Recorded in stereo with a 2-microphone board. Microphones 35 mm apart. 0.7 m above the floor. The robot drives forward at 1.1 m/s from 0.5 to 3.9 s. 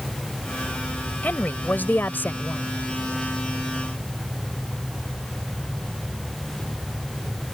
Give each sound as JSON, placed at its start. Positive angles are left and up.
{"t": 1.2, "sound": "a woman speaking", "side_deg": 60}